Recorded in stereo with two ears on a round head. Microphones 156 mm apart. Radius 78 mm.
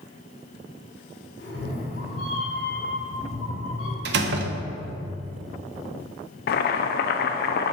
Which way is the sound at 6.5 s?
60° left (ahead or behind).